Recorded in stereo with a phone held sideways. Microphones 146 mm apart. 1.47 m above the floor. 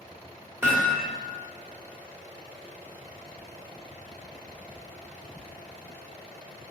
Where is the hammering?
15° right (ahead or behind), 1.7 m.